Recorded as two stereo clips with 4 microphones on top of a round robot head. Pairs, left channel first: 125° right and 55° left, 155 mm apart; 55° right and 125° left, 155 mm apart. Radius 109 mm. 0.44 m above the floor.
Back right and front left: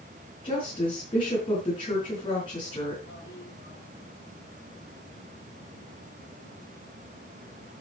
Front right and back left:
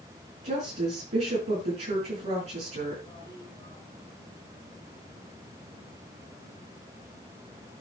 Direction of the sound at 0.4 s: 175° left.